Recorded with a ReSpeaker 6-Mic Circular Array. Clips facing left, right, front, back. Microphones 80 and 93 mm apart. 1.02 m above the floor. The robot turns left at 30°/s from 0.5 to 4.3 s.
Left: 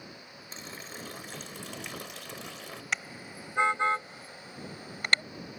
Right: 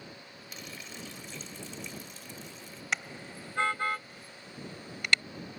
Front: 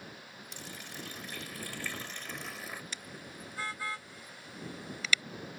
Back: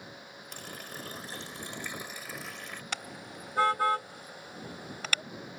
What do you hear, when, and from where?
0.5 s a running tap: 150° left; by 2.8 s 80° left
2.9 s a car horn: straight behind; by 5.2 s 140° left